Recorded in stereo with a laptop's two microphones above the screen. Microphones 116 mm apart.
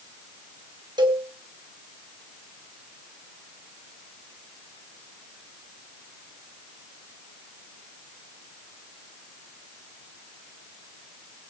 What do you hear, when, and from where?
1.0 s a cowbell: 40° right (ahead or behind), 3.5 m